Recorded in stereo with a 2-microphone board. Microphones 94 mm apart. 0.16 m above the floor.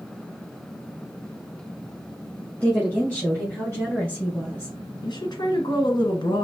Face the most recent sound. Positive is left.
turn(degrees=50)  # may be behind; listen again after turning